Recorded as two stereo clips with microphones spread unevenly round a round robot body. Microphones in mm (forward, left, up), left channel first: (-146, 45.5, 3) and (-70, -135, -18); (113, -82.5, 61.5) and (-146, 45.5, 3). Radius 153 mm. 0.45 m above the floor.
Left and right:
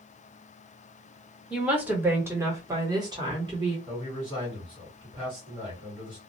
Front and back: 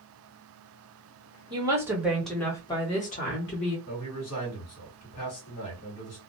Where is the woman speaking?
145° right, 1.5 m; by 3.8 s 35° right, 1.1 m.